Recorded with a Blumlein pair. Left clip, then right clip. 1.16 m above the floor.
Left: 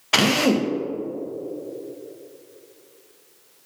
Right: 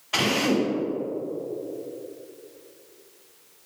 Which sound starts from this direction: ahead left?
A drill, at 0.1 s.